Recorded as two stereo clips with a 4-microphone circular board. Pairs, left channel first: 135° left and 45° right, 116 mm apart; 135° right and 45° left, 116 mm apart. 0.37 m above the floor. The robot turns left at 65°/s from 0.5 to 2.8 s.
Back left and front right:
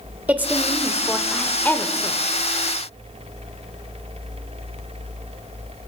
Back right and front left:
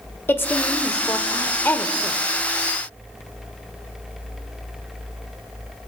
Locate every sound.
0.3 s a woman speaking: 100° right, 0.9 m; by 2.2 s 150° left, 0.9 m